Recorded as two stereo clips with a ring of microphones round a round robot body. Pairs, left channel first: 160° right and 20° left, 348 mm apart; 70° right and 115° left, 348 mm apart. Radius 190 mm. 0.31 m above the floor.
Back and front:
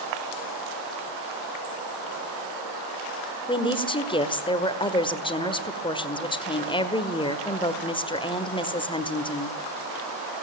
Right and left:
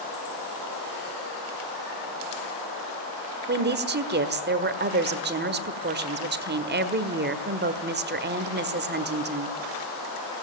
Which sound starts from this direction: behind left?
A woman speaking, at 3.5 s.